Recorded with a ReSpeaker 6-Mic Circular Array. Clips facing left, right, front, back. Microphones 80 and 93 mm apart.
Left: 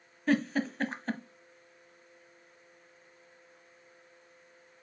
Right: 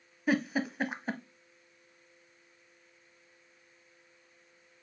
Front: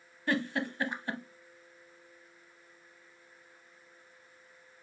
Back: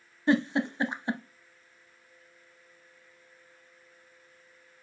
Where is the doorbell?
I don't hear a doorbell.